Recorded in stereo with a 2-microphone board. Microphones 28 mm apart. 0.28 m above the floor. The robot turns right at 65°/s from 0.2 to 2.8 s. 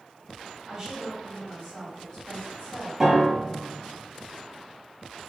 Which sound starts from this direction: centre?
A piano, at 3.0 s.